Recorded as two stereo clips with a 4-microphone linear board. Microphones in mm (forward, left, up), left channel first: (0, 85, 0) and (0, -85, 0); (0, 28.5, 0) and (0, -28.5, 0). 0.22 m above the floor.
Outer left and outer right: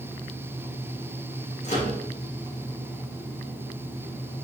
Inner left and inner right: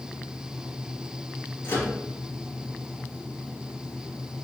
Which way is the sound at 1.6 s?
45° left (ahead or behind).